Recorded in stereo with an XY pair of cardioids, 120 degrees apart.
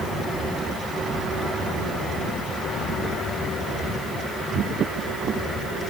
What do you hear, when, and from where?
Only background noise.